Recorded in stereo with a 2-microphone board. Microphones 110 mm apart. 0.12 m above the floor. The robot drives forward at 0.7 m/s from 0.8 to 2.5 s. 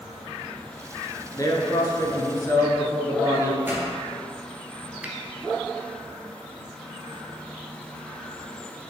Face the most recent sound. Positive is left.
turn(degrees=-15)  # may be behind; listen again after turning